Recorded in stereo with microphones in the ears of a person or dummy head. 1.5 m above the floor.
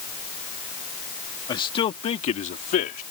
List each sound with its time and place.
1.5 s a man speaking: 30° left (ahead or behind); by 3.0 s 55° left (ahead or behind)